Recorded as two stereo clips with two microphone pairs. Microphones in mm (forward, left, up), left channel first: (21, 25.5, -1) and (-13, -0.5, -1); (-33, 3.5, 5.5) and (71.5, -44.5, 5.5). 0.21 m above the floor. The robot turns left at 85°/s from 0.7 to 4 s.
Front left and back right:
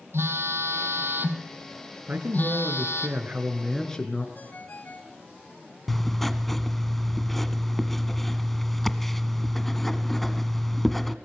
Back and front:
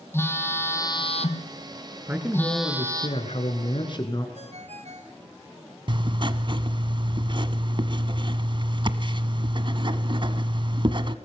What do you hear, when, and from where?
0.1 s a phone buzzing: 135° right, 3 m; by 3.1 s 25° left, 3 m
2.1 s a man speaking: 90° right, 3 m; by 4.2 s 105° left, 3 m
4.3 s a ringtone: 10° right, 2 m
5.9 s writing: 45° right, 1.2 m